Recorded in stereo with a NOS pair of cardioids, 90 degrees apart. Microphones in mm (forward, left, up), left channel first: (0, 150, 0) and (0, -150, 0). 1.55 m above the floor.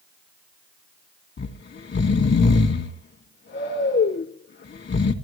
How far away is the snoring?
About 2 m.